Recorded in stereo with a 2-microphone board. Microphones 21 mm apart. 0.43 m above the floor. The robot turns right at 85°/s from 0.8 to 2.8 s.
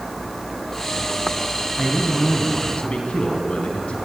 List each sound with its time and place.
1.8 s a man speaking: 20° right, 3 m; by 4.0 s 70° left, 3 m